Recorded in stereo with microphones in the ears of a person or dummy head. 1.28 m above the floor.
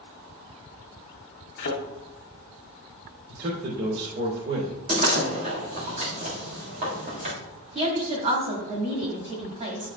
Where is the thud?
50° left (ahead or behind), 1.9 m.